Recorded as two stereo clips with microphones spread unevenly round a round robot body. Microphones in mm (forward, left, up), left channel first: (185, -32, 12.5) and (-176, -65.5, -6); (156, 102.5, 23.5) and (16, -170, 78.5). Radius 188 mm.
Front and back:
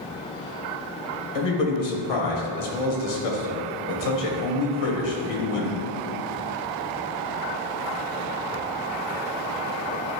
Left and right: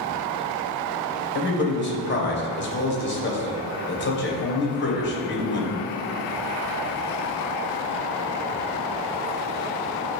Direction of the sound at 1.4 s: 15° left.